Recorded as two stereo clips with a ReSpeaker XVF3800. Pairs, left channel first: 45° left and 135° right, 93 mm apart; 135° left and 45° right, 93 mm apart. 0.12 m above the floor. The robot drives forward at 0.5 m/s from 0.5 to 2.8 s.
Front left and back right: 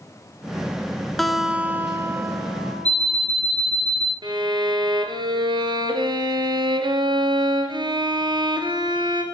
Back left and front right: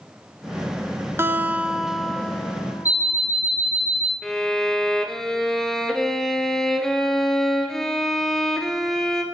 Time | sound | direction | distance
1.2 | a guitar | 40° right | 0.6 m
2.9 | an alarm clock | 175° right | 1.1 m
4.2 | a violin | 140° right | 1.1 m